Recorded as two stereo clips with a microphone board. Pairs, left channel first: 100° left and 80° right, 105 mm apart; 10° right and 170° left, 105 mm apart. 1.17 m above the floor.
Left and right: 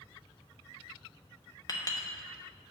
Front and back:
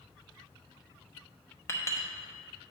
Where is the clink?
50° left, 0.9 m.